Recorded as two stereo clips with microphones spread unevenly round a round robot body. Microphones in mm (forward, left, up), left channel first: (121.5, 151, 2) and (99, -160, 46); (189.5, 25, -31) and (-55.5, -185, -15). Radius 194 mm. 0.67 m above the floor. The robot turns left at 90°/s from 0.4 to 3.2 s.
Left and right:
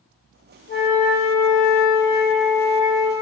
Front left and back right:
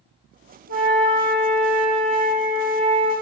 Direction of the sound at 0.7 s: 90° left.